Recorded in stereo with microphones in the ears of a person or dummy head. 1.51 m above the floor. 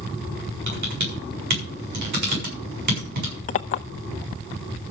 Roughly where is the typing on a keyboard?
Right.